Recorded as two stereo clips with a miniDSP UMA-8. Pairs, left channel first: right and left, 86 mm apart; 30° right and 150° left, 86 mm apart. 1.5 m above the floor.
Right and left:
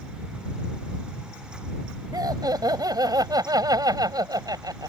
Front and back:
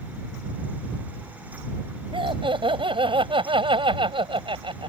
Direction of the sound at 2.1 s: 135° left.